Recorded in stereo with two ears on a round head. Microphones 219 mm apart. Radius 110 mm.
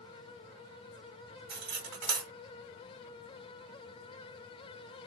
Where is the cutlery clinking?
70° right (ahead or behind), 1.5 m.